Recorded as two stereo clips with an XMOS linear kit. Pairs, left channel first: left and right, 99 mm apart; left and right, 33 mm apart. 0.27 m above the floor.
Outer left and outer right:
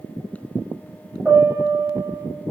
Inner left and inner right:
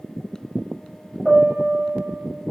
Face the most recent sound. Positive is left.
turn(degrees=-20)  # may be behind; listen again after turning